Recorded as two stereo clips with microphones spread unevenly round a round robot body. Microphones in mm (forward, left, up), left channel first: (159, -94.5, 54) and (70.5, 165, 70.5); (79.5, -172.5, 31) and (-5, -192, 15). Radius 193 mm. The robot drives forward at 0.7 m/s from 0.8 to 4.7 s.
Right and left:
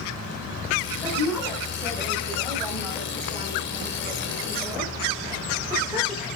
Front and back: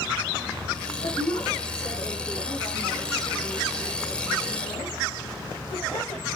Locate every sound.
1.0 s a woman speaking: 20° left, 7 m; by 6.3 s 35° left, 4.5 m